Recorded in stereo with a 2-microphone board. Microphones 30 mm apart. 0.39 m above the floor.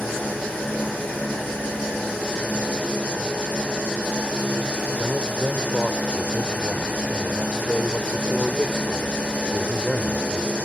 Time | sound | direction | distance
0.0 | an engine running | 80° left | 8.5 m
5.0 | a man speaking | 5° left (ahead or behind) | 0.9 m